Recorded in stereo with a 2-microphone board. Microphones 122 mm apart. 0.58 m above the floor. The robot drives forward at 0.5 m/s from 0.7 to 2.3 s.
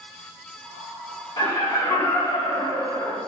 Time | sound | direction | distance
1.4 | laughter | 40° left (ahead or behind) | 1.6 m